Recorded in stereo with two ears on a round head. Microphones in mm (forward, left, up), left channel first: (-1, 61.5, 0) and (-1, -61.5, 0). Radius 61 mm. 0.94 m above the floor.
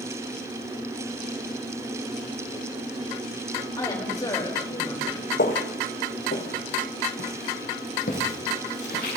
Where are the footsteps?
65° left (ahead or behind), 2 m.